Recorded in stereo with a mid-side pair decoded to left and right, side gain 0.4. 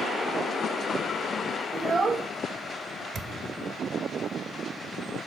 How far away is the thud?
About 1.0 m.